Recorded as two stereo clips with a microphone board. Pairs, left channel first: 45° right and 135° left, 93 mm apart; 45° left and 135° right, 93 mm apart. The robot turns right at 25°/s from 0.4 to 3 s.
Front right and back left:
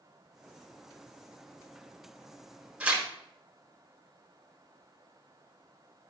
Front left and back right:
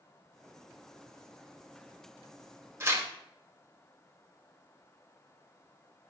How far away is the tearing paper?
About 1.5 m.